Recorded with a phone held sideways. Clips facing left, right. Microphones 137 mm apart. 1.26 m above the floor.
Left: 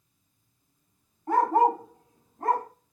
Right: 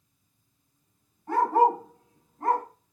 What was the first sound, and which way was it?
A dog barking, 45° left (ahead or behind).